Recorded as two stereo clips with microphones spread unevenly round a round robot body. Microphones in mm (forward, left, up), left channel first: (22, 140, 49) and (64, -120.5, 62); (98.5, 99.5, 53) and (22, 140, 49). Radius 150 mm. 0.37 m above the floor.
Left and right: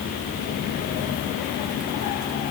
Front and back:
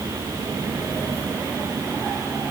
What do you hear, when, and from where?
Only background noise.